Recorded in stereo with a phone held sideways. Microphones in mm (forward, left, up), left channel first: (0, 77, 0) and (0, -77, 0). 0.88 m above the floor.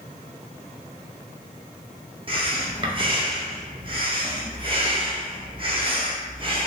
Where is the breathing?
35° right (ahead or behind), 0.6 m.